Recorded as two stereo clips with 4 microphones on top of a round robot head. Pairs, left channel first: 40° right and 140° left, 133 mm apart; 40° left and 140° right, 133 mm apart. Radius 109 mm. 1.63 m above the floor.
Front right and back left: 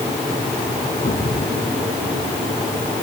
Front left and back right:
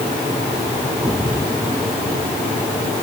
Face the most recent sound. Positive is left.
turn(degrees=-60)